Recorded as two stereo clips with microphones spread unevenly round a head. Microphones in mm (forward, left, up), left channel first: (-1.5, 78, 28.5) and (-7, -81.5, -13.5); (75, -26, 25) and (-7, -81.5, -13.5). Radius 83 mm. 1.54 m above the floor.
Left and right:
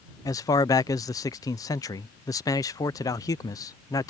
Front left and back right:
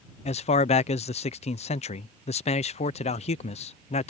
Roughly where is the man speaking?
Ahead.